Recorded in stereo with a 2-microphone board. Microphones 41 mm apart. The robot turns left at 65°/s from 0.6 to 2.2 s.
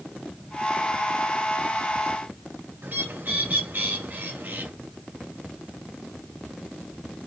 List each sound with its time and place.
2.8 s a bird: 55° right (ahead or behind), 1.9 m